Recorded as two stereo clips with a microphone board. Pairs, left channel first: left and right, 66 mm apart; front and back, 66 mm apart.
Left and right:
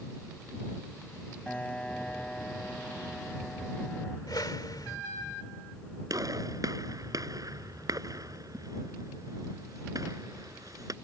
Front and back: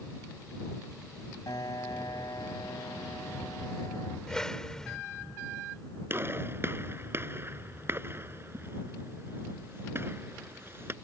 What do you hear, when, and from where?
1.5 s a piano: 15° left
4.3 s a whoosh: 80° left
6.1 s a gunshot: 125° right